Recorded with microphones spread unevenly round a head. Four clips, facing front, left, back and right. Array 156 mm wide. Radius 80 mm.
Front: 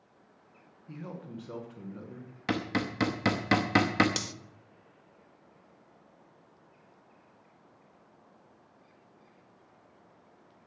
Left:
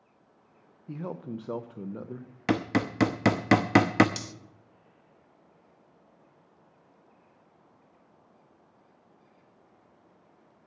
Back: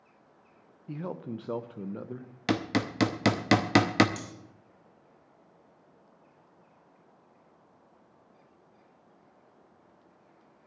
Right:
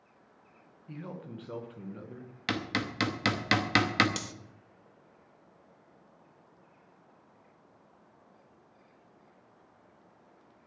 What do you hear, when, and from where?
0.9 s a man speaking: 135° left, 1.1 m
2.5 s hammering: 120° left, 0.6 m
4.2 s cutlery clinking: 20° right, 1.1 m